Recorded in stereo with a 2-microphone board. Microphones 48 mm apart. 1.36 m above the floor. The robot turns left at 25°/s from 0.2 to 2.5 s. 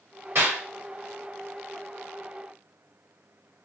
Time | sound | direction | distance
0.3 | a clap | 50° right (ahead or behind) | 2.5 m